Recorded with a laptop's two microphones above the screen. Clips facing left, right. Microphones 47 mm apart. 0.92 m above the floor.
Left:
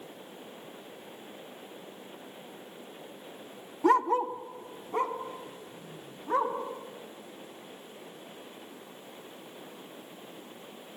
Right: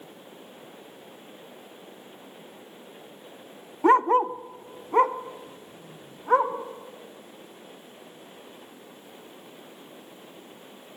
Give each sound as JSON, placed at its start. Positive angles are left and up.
{"t": 3.8, "sound": "a dog barking", "side_deg": -30, "distance_m": 0.5}